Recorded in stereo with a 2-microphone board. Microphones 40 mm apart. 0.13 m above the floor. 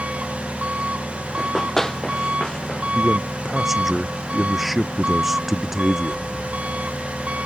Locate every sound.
0.0 s an engine running: 35° right (ahead or behind)
1.4 s running footsteps: 10° left (ahead or behind); by 2.8 s 25° left (ahead or behind)
3.0 s a man speaking: 10° right (ahead or behind)